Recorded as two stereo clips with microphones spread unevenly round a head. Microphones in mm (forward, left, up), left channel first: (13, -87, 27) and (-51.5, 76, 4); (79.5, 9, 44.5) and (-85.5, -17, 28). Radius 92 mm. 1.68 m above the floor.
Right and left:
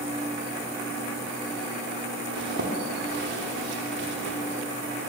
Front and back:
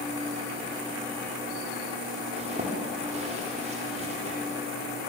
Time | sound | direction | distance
2.3 | a zipper | 135° left | 3.5 m